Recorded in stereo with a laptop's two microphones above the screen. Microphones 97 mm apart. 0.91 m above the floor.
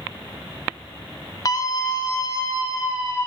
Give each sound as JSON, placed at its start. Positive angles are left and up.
{"t": 1.4, "sound": "a scream", "side_deg": 40, "distance_m": 0.9}